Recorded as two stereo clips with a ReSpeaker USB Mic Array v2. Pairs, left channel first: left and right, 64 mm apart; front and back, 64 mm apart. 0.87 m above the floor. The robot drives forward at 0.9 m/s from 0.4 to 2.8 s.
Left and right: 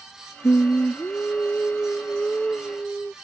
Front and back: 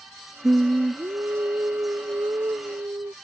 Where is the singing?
120° left; by 3.1 s 170° left.